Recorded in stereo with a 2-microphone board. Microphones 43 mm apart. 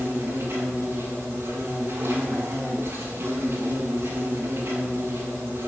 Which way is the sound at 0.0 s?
75° right (ahead or behind).